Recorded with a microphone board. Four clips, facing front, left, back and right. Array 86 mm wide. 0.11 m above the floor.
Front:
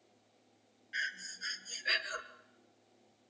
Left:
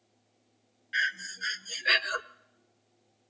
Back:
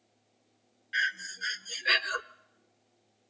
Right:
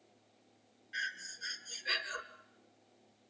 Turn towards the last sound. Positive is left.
turn(degrees=125)